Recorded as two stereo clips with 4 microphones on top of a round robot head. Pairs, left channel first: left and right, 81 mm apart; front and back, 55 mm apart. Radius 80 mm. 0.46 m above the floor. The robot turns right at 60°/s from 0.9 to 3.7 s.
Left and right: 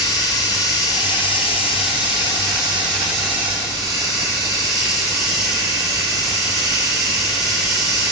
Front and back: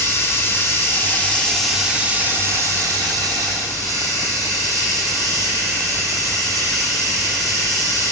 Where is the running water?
45° left, 6 m; by 8.1 s 145° right, 6 m.